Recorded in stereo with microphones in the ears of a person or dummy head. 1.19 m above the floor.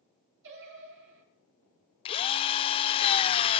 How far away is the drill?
About 0.6 m.